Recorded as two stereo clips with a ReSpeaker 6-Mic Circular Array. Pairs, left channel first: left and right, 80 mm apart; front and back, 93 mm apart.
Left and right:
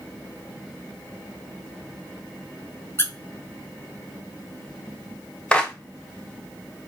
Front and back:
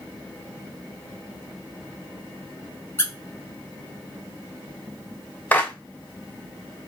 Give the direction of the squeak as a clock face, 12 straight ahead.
10 o'clock.